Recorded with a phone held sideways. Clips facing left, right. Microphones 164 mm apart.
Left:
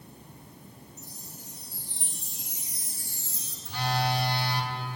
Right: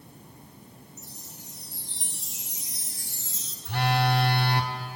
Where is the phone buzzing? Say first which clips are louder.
Right 4 dB; 65° right (ahead or behind), 0.9 m.